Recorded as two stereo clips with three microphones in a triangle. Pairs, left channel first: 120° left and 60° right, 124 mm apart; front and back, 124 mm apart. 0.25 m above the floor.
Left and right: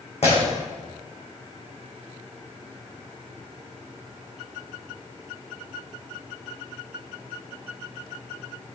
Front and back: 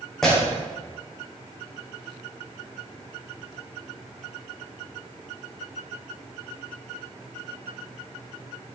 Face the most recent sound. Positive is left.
turn(degrees=85)